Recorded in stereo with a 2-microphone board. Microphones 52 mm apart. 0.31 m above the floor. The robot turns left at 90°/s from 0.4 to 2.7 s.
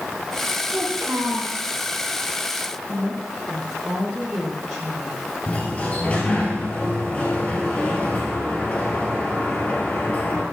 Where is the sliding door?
30° left (ahead or behind), 3.5 m.